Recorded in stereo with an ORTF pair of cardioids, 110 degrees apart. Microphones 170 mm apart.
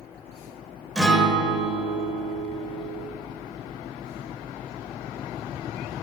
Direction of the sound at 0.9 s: 5° left.